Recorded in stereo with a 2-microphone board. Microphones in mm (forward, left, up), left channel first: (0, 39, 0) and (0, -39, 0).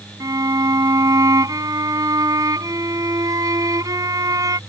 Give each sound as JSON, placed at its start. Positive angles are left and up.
{"t": 0.2, "sound": "a violin", "side_deg": -50}